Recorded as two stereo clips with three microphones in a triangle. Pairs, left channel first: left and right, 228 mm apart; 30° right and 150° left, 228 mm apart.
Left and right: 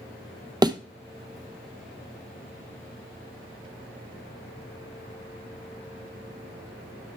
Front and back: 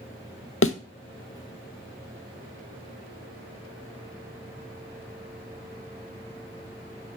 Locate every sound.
0.6 s a thud: 15° right, 0.7 m